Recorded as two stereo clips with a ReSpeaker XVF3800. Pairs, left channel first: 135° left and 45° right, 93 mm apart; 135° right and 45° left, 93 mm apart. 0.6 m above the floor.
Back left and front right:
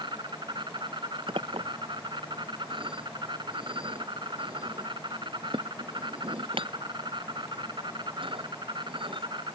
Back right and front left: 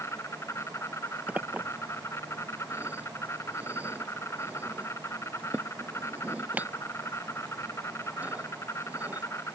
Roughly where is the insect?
Right.